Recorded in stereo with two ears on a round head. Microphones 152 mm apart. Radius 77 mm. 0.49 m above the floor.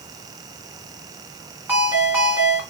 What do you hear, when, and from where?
1.7 s a ringtone: 10° right (ahead or behind), 2 m